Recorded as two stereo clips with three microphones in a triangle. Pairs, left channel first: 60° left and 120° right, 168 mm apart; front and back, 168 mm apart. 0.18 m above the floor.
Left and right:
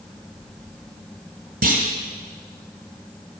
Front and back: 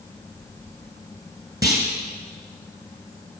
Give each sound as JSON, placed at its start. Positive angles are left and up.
{"t": 1.6, "sound": "a clunk", "azimuth_deg": -115, "distance_m": 1.1}